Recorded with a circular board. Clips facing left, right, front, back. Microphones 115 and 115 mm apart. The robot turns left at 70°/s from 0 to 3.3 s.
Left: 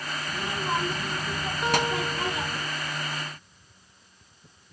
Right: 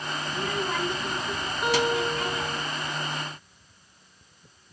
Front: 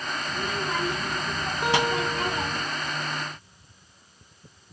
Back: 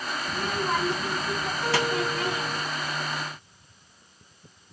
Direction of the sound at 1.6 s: Straight ahead.